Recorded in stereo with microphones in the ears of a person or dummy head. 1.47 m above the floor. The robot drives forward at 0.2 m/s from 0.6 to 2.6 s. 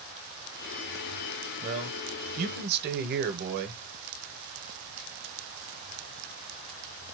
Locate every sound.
1.6 s a man speaking: 45° right (ahead or behind), 0.9 m; by 3.8 s 55° right (ahead or behind), 0.7 m